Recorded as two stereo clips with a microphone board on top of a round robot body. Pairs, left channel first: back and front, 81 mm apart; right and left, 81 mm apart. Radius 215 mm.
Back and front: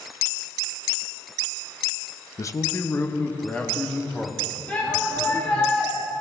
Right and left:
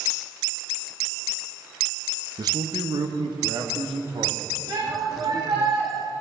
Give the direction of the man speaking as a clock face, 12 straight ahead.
8 o'clock.